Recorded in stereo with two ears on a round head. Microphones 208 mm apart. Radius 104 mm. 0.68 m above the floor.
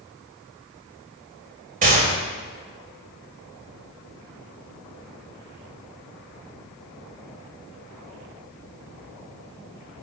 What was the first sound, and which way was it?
A gunshot, 35° right (ahead or behind).